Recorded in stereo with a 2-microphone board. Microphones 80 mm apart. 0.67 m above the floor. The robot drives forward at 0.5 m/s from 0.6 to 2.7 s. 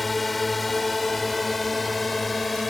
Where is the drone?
Centre (ahead or behind).